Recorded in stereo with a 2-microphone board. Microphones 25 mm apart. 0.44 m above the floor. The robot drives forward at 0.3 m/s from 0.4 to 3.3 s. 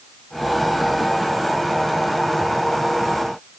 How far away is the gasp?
No gasp in this recording.